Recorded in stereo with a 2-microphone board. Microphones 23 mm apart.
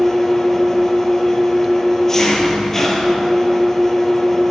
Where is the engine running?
15° left (ahead or behind), 0.9 m.